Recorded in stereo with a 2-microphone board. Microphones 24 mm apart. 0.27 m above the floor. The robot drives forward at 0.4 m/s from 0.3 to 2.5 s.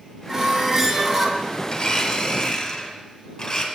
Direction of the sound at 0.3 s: 25° right (ahead or behind).